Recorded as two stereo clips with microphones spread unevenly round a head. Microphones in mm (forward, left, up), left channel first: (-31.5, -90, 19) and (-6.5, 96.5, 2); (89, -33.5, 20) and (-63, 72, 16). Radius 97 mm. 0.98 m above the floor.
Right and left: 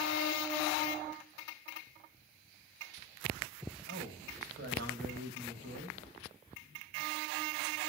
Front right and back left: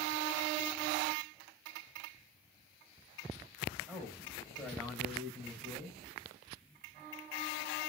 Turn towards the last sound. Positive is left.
turn(degrees=50)